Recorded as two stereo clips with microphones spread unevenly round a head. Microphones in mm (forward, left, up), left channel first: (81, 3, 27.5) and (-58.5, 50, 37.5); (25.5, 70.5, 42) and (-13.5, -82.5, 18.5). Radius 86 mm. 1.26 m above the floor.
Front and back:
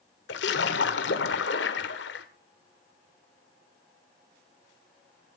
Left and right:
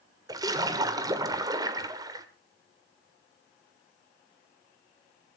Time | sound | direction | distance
0.3 | a splash | 35° right | 1.6 m